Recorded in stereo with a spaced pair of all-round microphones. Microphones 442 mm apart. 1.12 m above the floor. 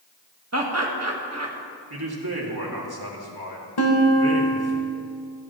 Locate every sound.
0.5 s laughter: 35° right (ahead or behind), 1.5 m
1.9 s a man speaking: 55° right (ahead or behind), 2 m
3.8 s a guitar: 60° left (ahead or behind), 1.4 m